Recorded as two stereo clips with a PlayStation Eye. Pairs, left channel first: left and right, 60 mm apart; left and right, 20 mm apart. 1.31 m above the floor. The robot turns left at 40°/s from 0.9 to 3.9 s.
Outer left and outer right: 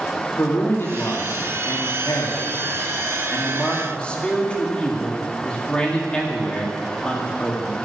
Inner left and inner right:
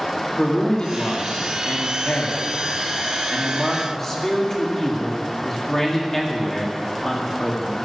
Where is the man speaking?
140° left, 2.5 m; by 7.8 s 20° left, 2.5 m.